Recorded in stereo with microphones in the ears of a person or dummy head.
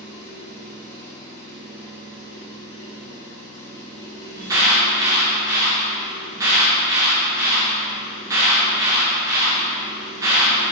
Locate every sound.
0.0 s an engine running: 15° left (ahead or behind), 2 m
4.4 s an alarm: 20° right (ahead or behind), 1.4 m